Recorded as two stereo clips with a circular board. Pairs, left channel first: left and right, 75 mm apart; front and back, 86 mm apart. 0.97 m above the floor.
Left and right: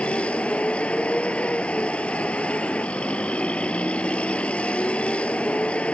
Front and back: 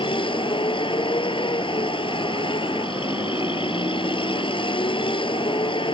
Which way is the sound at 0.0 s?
15° left.